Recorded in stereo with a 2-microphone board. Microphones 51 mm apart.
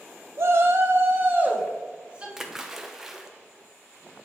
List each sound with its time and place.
0.4 s a shout: 55° right (ahead or behind), 0.8 m; by 2.3 s 20° right (ahead or behind), 1.3 m
2.4 s a splash: 5° right (ahead or behind), 0.6 m